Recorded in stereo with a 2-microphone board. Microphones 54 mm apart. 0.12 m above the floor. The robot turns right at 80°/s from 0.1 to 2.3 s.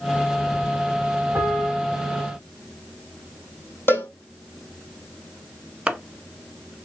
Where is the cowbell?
45° left (ahead or behind), 2 m.